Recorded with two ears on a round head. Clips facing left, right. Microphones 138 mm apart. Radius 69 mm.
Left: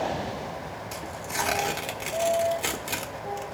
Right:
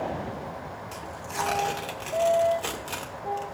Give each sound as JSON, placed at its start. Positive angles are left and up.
{"t": 0.9, "sound": "tearing paper", "side_deg": 15, "distance_m": 1.0}